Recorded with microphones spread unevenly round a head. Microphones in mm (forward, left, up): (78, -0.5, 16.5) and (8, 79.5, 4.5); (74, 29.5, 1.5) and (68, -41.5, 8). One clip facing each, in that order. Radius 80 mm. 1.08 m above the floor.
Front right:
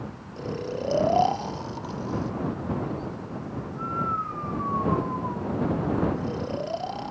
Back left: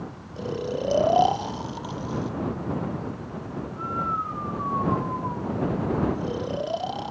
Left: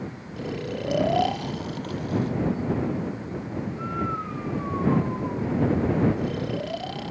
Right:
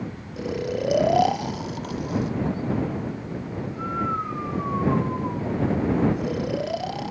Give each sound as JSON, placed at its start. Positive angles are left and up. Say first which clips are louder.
{"t": 0.4, "sound": "snoring", "louder": "back left 3 dB, right 4 dB", "azimuth_deg": -145}